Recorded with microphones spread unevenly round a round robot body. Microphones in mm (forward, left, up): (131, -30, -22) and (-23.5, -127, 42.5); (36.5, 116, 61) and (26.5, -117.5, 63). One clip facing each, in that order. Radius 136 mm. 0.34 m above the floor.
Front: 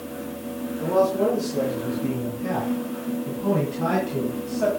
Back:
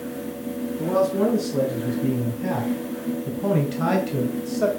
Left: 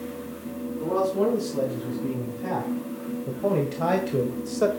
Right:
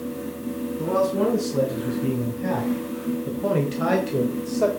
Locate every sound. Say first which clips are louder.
0.8 s a man speaking: even, right 1 dB; 135° right, 4.5 m; by 4.7 s 155° left, 1.8 m